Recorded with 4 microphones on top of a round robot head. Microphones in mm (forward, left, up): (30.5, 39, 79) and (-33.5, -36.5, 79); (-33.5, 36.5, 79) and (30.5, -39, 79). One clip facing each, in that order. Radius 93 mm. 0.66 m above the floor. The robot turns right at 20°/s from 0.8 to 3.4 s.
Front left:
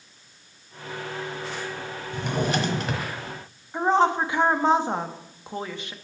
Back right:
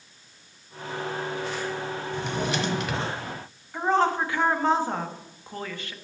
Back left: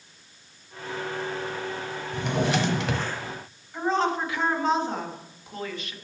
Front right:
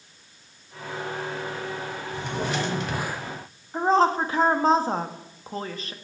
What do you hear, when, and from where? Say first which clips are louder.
2.1 s a drawer: front left 4 dB, back left 4 dB; 90° left, 1.3 m; by 3.1 s 110° left, 1.3 m
3.7 s a woman speaking: front left 2 dB, front right 5 dB; 15° right, 1.3 m